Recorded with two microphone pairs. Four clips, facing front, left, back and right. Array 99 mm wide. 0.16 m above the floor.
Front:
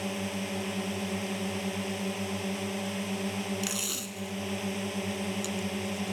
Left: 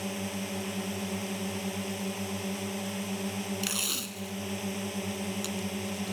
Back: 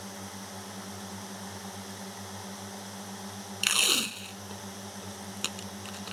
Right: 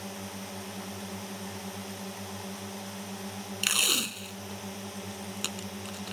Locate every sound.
0.0 s a drone: 25° left
3.6 s tape being pulled: 130° right